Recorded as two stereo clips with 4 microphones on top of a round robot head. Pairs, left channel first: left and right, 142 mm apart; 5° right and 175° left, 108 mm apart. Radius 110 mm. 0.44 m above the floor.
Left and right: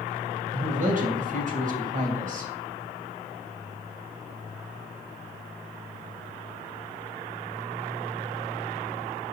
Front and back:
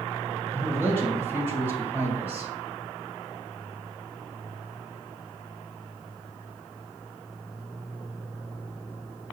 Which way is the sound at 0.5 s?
110° right.